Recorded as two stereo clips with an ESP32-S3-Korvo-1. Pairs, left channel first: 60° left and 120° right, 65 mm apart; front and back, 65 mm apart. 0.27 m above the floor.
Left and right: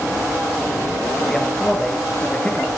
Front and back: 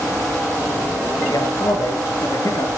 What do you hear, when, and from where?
1.3 s a man speaking: 25° right, 4.5 m; by 2.8 s 5° right, 4.5 m